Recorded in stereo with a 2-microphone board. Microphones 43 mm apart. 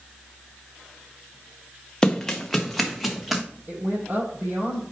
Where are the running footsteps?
15° left (ahead or behind), 1.1 m; by 3.4 s 5° right (ahead or behind), 1.7 m.